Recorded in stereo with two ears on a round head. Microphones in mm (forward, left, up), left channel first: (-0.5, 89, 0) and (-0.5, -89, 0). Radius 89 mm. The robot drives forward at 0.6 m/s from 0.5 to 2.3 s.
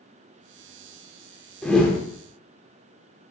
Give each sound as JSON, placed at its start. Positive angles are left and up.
{"t": 1.6, "sound": "a whoosh", "side_deg": 5, "distance_m": 0.5}